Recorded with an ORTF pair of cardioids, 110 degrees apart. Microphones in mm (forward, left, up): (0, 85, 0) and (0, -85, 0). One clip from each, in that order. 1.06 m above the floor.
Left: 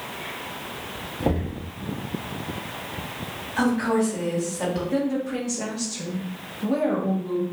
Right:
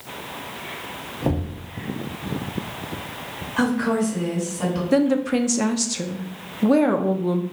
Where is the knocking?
Straight ahead, 0.9 m.